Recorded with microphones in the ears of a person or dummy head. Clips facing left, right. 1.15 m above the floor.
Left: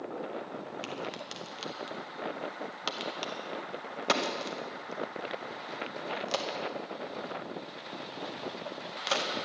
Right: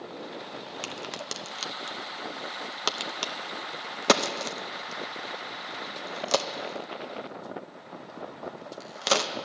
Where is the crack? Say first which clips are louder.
Even; 50° right (ahead or behind), 0.7 m.